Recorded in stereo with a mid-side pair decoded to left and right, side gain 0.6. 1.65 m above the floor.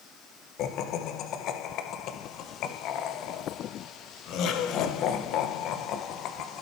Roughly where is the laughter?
Ahead left.